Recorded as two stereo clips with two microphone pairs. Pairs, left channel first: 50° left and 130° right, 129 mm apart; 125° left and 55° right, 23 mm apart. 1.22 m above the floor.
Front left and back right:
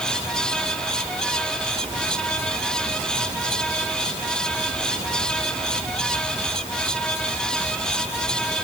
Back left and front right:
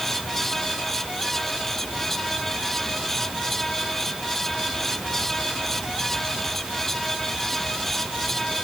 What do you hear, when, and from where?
Only background noise.